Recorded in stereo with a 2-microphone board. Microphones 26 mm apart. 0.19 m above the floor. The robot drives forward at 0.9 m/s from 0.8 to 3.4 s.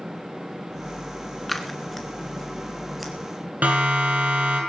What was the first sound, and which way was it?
Scissors, centre (ahead or behind).